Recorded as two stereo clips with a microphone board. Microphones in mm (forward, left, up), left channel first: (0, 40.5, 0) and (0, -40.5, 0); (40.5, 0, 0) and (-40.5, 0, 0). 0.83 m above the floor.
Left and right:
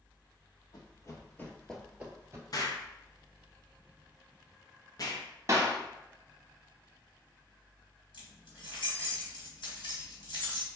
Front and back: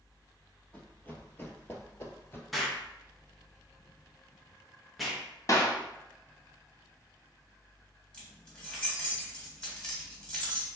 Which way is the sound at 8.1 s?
75° left.